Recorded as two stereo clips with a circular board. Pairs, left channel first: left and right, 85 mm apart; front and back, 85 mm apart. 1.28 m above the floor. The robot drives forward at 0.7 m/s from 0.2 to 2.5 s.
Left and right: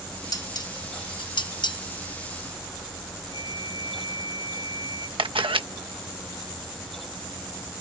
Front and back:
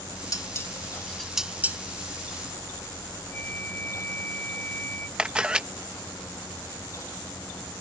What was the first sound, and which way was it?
Dishes clattering, 50° left.